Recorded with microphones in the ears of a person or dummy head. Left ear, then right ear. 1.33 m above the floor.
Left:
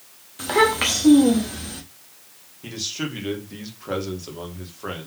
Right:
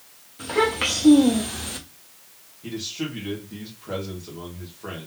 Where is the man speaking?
80° left, 1.5 m.